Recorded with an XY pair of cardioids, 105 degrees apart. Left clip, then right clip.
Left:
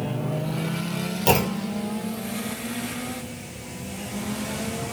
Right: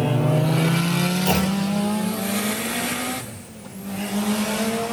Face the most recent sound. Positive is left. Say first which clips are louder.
# even
turn(degrees=45)